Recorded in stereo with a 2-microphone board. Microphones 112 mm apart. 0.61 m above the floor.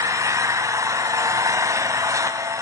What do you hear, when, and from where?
0.0 s an engine running: 30° right (ahead or behind), 0.8 m